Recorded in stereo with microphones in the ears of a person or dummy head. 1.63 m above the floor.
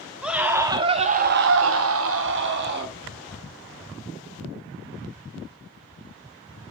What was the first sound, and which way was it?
A scream, 10° right (ahead or behind).